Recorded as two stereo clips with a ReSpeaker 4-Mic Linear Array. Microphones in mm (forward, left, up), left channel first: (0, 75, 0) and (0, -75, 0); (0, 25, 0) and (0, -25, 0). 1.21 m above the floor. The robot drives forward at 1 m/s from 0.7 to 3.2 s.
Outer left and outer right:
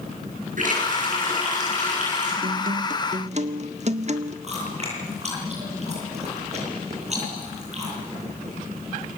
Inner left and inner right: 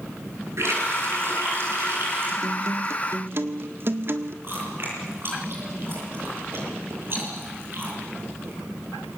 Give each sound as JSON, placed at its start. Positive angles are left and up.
{"t": 0.6, "sound": "a running tap", "side_deg": -60, "distance_m": 9.5}
{"t": 2.4, "sound": "a guitar", "side_deg": -70, "distance_m": 1.2}
{"t": 4.4, "sound": "chewing", "side_deg": -45, "distance_m": 9.0}